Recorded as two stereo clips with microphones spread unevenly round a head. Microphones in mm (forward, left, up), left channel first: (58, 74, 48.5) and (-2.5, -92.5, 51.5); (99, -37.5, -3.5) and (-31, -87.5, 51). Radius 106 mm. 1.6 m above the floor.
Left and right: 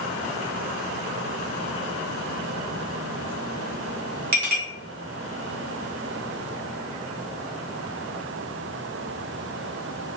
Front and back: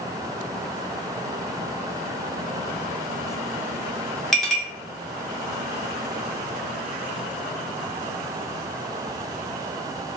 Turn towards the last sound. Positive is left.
turn(degrees=-85)